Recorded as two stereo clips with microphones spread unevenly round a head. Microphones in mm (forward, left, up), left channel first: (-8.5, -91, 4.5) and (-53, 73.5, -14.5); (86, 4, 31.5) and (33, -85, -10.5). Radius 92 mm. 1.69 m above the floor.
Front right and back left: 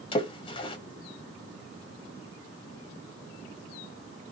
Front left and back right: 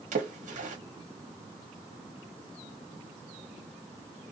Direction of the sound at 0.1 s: 135° right.